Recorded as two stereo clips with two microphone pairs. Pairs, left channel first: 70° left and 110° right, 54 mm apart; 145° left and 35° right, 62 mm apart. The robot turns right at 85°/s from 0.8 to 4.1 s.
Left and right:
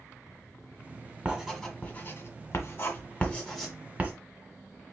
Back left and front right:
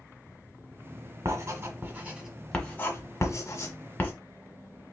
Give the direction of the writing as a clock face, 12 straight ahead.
1 o'clock.